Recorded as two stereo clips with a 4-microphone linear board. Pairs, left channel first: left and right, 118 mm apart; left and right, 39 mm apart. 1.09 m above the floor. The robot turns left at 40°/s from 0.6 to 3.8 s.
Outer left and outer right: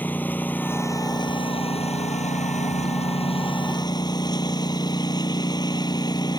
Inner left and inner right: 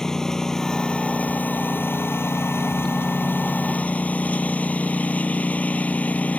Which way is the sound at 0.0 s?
165° left.